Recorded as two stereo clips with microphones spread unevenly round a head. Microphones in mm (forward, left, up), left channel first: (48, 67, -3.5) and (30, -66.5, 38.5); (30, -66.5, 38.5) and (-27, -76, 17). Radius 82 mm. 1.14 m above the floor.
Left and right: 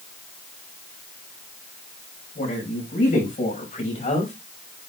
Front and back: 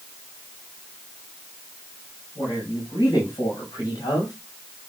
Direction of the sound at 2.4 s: 60° left.